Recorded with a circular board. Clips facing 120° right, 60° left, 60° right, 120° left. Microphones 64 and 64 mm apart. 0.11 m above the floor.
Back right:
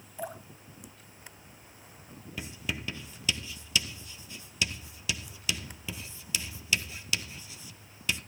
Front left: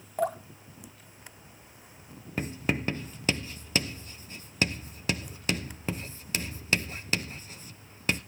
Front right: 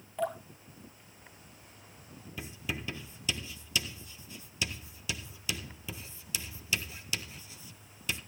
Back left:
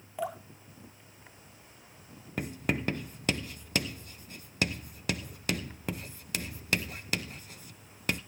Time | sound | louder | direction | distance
0.2 | dripping | front left 10 dB, front right 2 dB | 40° left | 1.3 m
2.4 | writing | front left 7 dB, back left 7 dB | 100° left | 0.7 m